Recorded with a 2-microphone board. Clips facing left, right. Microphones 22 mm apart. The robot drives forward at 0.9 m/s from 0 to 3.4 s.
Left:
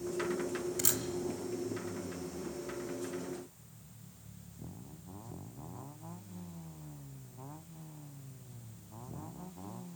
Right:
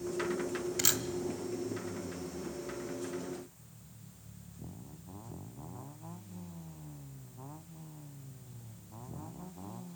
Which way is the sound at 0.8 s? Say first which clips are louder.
Right 5 dB; 35° right (ahead or behind).